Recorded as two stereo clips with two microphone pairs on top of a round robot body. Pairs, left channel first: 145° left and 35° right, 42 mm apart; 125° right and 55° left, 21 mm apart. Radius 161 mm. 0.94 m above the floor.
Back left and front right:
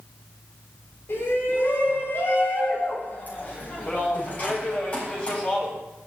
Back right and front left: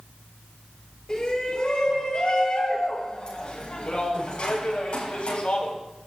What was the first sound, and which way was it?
A shout, 175° left.